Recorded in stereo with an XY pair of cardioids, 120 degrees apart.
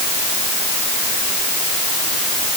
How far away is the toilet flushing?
I don't hear a toilet flushing.